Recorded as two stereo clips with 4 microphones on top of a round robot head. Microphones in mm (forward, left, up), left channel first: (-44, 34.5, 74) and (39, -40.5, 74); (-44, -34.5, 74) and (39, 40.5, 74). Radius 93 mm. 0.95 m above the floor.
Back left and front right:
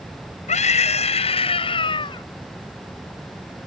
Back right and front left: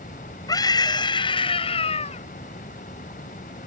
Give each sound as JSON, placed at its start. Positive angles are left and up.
{"t": 0.5, "sound": "a scream", "azimuth_deg": 165}